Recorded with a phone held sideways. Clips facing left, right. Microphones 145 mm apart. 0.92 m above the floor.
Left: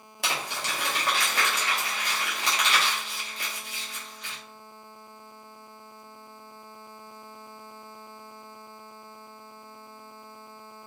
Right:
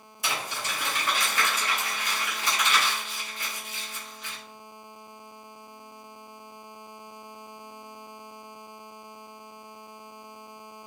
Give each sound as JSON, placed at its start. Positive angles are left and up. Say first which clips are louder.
{"t": 0.2, "sound": "crumpling", "louder": "left 1 dB", "side_deg": 75, "distance_m": 1.1}